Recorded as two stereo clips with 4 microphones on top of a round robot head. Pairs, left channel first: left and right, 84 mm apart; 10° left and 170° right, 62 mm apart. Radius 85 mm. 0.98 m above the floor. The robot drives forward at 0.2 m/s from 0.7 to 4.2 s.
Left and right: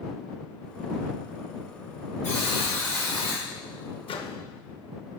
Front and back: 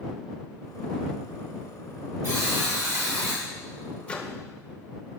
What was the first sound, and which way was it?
A buzzer, 155° left.